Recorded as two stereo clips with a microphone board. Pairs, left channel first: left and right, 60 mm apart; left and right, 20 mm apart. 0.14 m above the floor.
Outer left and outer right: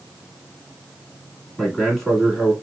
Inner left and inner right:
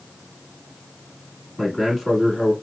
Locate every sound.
1.6 s a man speaking: 5° left (ahead or behind), 1.3 m